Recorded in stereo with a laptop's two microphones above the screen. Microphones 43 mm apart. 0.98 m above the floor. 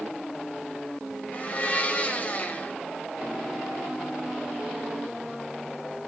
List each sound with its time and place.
1.3 s a blender: 35° left (ahead or behind), 0.9 m